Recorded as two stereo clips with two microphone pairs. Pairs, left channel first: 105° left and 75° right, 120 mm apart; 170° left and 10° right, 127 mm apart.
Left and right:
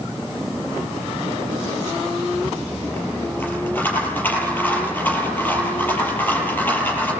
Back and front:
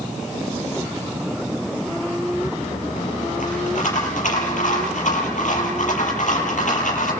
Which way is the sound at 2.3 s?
175° left.